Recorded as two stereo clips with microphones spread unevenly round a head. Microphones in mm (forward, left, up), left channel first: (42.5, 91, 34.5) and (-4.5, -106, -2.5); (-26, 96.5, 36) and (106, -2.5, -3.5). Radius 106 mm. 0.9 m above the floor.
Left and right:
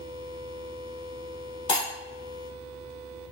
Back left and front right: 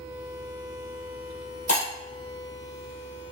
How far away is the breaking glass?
About 1.7 m.